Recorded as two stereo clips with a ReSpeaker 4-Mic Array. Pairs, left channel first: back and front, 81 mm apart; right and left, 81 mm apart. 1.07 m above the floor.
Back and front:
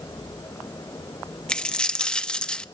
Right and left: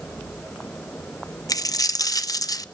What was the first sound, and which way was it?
A dropped coin, 105° right.